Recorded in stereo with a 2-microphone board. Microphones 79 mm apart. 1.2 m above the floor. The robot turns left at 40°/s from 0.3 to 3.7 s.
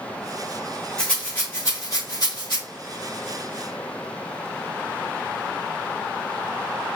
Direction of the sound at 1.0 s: 10° left (ahead or behind).